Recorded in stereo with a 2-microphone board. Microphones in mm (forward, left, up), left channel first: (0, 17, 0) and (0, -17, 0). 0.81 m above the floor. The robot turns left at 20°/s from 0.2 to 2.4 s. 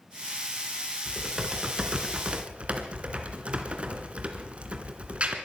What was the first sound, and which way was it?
Typing on a keyboard, 10° right (ahead or behind).